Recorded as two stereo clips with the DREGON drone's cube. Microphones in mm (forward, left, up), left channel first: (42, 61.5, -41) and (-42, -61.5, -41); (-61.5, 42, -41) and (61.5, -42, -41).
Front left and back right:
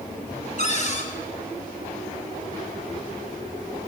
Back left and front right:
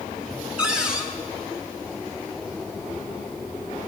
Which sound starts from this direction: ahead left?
A cupboard door, at 0.6 s.